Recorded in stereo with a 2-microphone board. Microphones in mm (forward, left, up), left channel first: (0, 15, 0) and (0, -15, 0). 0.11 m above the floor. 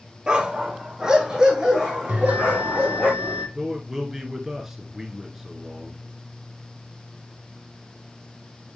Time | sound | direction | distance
0.3 | a dog barking | 30° right (ahead or behind) | 0.9 m
2.1 | a bell | 45° right (ahead or behind) | 2.5 m
3.5 | a man speaking | 15° right (ahead or behind) | 1.2 m